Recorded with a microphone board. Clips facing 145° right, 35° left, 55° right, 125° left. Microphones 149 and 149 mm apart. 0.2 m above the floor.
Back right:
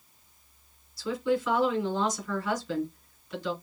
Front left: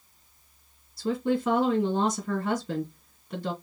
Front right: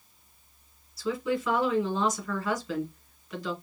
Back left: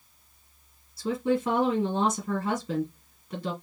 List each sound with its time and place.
1.0 s a woman speaking: 70° left, 2.5 m